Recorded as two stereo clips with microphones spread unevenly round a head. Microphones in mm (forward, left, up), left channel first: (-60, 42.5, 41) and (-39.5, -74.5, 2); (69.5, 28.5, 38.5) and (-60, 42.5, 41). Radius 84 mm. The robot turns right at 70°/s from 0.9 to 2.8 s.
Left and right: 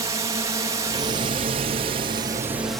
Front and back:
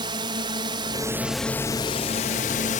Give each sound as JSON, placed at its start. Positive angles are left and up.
{"t": 0.0, "sound": "a drone", "azimuth_deg": -130}